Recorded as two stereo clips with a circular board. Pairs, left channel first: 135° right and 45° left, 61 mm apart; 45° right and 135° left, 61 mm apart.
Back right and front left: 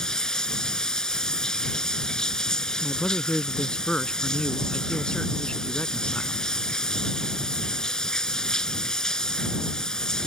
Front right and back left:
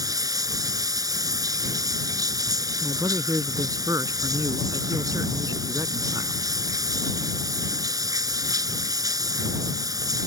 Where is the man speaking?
155° left.